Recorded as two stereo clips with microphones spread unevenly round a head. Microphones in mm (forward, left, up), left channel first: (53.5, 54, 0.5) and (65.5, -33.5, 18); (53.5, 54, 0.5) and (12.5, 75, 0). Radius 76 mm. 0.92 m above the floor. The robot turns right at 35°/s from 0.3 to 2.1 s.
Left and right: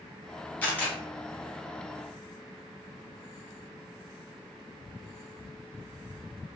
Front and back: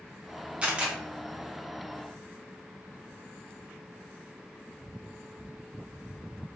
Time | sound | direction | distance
0.6 | a camera shutter | 125° left | 0.7 m